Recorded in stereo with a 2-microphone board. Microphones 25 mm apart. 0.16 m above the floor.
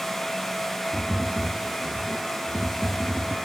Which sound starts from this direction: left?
Tapping, at 0.9 s.